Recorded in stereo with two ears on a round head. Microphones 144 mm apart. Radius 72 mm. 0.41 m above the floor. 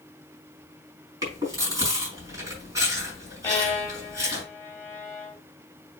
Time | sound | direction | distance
1.2 | chewing | 20° right (ahead or behind) | 4.5 m
3.4 | a violin | 15° left (ahead or behind) | 2.5 m